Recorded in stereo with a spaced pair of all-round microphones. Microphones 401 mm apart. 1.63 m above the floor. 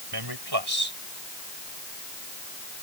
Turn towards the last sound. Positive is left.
turn(degrees=-85)